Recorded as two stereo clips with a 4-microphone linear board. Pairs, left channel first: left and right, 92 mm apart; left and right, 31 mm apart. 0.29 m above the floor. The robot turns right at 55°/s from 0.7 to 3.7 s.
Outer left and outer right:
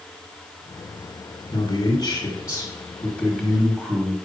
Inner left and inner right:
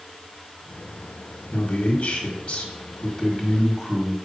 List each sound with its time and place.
1.5 s a man speaking: 80° left, 1.6 m; by 4.2 s 160° right, 1.6 m